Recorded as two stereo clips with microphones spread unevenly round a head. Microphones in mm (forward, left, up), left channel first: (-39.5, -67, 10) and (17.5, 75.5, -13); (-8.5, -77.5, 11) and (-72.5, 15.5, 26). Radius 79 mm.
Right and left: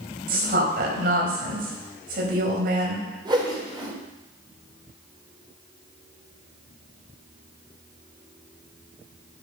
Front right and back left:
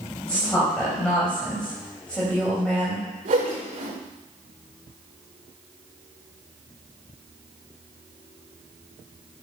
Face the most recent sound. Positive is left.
turn(degrees=135)